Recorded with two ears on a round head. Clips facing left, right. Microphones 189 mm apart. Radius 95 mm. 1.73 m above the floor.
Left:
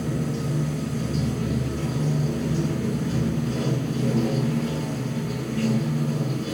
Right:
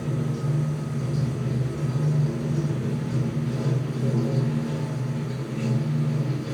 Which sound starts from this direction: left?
Running water, at 0.0 s.